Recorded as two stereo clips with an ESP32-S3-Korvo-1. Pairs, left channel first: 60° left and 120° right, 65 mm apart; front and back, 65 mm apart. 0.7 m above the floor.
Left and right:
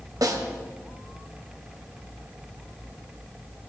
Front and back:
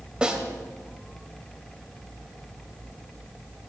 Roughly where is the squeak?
I don't hear a squeak.